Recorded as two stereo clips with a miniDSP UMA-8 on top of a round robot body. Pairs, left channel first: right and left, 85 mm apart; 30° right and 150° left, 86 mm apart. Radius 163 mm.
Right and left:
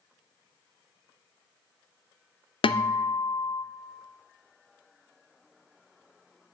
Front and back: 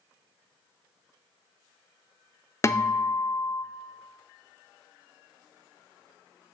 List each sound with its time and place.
2.6 s a guitar: 90° right, 0.5 m